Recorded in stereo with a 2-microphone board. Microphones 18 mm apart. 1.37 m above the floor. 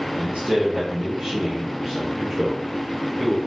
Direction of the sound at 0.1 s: 70° right (ahead or behind).